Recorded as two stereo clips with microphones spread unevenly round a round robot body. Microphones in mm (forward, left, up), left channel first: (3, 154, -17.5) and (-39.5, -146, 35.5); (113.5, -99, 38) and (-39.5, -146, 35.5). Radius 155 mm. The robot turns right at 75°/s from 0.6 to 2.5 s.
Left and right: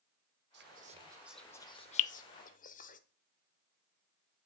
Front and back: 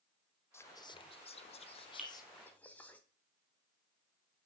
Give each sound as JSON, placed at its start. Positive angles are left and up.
{"t": 0.5, "sound": "whispering", "azimuth_deg": -50, "distance_m": 1.0}
{"t": 2.0, "sound": "dripping", "azimuth_deg": 105, "distance_m": 0.5}